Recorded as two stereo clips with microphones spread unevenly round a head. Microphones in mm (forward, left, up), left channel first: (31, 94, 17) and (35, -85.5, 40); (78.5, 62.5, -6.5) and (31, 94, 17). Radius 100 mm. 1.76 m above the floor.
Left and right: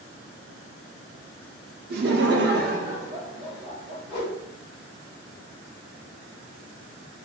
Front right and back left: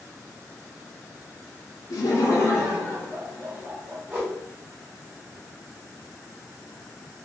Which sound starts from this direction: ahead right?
Laughter, at 1.9 s.